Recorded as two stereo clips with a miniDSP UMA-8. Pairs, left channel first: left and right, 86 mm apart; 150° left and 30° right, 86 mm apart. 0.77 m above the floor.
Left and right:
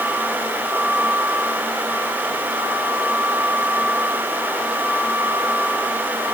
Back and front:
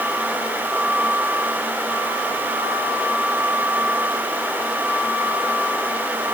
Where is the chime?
No chime in this recording.